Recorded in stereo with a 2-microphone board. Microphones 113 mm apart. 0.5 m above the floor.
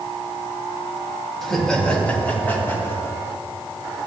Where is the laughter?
5° left (ahead or behind), 3.5 m; by 3.1 s 25° left (ahead or behind), 5.5 m.